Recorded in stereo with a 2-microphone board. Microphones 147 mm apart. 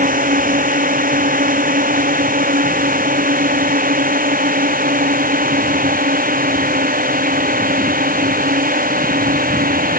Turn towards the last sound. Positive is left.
turn(degrees=-75)  # may be behind; listen again after turning